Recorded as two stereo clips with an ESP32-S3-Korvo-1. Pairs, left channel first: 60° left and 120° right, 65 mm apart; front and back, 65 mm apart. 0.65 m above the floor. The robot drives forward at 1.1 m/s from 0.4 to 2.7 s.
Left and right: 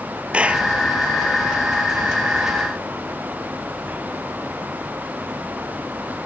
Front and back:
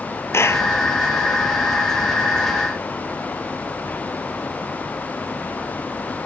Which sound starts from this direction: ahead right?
A clap, at 0.3 s.